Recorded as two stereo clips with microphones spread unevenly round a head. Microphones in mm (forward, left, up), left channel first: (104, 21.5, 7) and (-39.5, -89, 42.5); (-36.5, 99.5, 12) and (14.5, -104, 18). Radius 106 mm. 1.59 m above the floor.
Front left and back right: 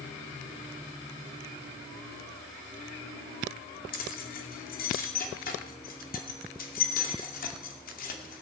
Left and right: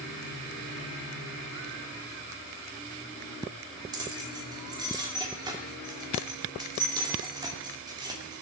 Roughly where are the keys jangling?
Ahead.